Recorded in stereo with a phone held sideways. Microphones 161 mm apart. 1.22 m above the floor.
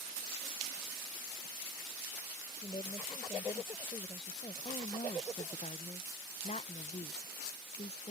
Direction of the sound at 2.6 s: 30° left (ahead or behind).